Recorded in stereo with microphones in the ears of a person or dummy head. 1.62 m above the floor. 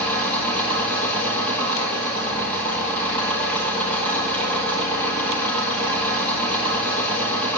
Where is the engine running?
5° left (ahead or behind), 9 m.